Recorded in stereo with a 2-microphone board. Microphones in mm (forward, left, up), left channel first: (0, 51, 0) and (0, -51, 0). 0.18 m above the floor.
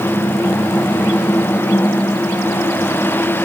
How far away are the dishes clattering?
I don't hear dishes clattering.